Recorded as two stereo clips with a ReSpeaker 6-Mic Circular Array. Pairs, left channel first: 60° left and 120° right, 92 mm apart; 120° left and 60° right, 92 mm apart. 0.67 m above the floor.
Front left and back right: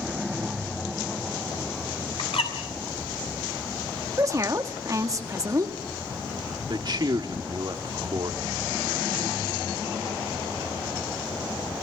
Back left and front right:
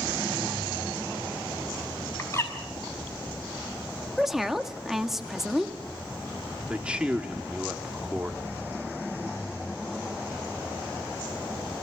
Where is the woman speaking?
145° right, 1.4 m.